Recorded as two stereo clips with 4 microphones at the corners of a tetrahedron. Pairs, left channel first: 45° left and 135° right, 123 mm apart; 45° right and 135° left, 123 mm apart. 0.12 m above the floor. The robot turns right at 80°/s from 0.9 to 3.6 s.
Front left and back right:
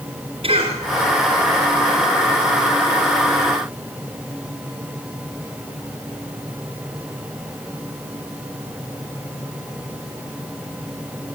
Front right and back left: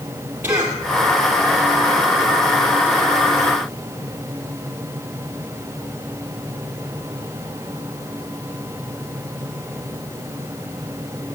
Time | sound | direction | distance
0.4 | a cough | 155° right | 2 m